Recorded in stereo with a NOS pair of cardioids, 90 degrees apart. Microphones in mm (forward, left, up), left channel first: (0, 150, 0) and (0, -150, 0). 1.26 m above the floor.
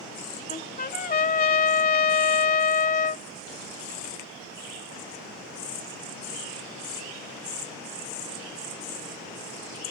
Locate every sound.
0.5 s a trumpet: 30° left